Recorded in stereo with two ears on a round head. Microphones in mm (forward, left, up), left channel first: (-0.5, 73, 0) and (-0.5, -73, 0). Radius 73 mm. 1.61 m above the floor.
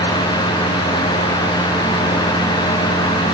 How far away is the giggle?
No giggle in this recording.